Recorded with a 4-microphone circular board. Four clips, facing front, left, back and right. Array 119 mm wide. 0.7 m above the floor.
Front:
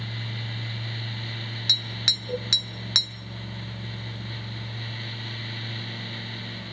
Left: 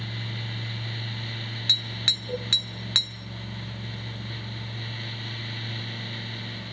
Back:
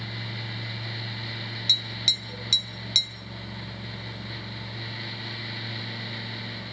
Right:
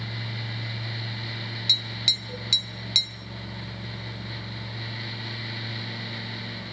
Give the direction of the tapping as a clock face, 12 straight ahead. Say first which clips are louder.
Even, front 1 dB; 11 o'clock.